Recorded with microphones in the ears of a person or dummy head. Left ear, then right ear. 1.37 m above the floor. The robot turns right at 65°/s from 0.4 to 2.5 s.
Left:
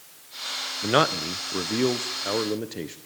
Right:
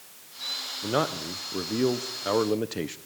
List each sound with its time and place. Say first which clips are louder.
0.8 s a man speaking: left 6 dB; 105° left, 0.8 m; by 3.0 s 150° right, 0.8 m